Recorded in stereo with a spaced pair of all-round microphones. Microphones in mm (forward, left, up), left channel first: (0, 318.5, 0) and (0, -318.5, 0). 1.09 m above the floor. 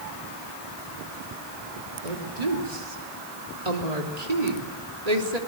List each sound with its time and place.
2.0 s a woman speaking: 80° right, 3 m